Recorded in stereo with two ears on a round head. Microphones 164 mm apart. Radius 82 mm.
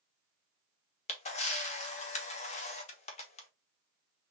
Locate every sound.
1.1 s a camera shutter: 35° left (ahead or behind), 1.1 m